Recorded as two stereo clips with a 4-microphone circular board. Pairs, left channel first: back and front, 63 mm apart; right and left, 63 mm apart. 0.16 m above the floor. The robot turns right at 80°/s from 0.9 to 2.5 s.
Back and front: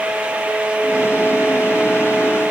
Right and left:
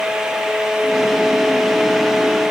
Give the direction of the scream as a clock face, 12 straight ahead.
I don't hear a scream.